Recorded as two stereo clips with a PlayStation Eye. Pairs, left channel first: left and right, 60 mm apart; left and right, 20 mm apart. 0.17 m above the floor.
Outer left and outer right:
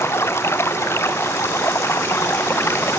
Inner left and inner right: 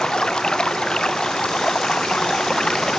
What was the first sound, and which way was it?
Running water, 45° left (ahead or behind).